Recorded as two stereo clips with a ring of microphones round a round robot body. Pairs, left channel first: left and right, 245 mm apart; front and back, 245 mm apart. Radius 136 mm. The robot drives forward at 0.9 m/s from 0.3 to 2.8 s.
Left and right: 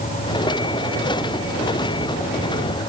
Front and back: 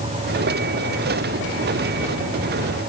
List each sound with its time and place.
Only background noise.